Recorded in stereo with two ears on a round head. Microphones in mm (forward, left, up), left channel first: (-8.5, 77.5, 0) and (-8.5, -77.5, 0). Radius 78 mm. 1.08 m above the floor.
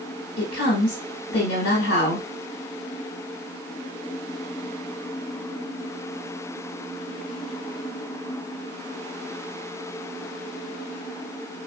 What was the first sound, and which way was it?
A woman speaking, 75° left (ahead or behind).